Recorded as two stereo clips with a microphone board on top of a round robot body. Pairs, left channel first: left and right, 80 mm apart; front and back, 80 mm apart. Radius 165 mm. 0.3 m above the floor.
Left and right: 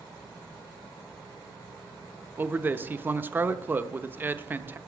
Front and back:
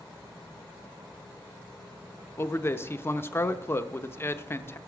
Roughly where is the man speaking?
Ahead right.